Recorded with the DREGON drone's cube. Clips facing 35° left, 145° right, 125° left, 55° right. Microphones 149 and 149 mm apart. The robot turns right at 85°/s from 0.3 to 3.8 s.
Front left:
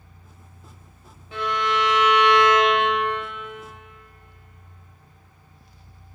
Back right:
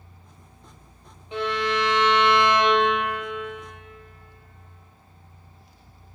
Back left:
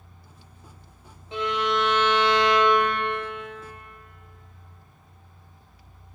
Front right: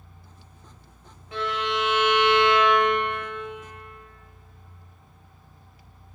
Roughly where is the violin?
Behind.